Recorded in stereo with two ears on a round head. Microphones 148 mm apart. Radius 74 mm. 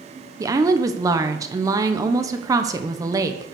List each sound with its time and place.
0.4 s a woman speaking: 20° right (ahead or behind), 1.0 m